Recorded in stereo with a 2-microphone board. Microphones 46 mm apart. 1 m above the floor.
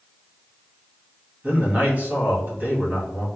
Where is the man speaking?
30° right (ahead or behind), 1.6 m.